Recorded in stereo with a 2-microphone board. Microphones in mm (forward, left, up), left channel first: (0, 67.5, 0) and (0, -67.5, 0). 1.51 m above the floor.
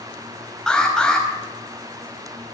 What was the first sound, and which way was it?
An alarm, 5° left (ahead or behind).